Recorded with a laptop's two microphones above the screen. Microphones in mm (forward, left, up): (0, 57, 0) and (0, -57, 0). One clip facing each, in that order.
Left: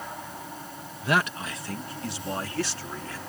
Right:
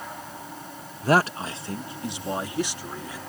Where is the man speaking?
40° right (ahead or behind); by 3.2 s 15° right (ahead or behind).